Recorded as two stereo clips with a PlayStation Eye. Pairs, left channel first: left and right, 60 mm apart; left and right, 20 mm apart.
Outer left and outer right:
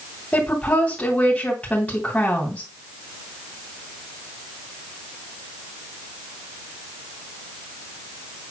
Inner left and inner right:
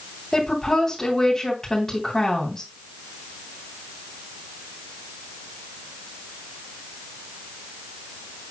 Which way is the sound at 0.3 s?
20° left (ahead or behind).